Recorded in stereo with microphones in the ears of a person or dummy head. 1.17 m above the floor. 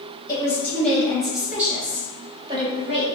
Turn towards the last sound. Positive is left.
turn(degrees=-30)  # may be behind; listen again after turning